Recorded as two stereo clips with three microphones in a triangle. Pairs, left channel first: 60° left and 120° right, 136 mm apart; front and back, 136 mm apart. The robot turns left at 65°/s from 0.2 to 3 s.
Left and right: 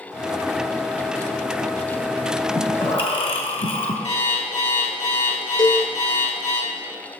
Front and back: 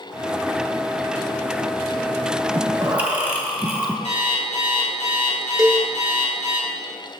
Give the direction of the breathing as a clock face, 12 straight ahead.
8 o'clock.